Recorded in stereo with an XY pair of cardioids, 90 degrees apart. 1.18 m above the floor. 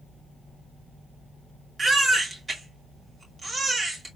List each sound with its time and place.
1.8 s a baby crying: 40° right, 2 m